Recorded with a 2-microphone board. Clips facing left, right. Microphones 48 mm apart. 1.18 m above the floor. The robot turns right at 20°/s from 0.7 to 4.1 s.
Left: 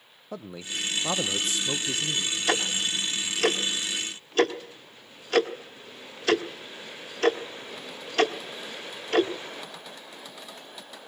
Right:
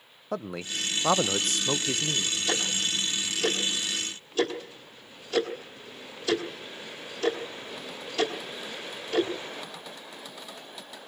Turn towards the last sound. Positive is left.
turn(degrees=65)  # may be behind; listen again after turning